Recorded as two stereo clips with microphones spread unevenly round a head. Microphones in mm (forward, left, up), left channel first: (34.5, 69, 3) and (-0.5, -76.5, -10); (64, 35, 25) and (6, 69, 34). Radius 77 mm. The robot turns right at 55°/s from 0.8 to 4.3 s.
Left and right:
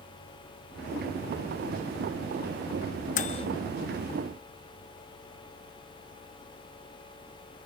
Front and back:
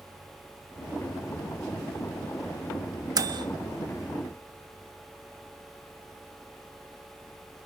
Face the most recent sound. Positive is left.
turn(degrees=-175)